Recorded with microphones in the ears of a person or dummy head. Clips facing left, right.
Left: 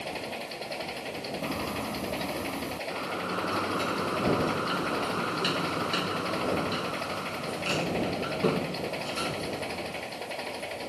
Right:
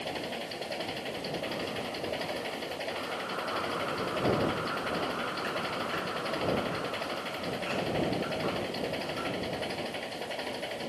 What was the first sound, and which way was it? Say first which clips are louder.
An engine running: even; 10° right (ahead or behind).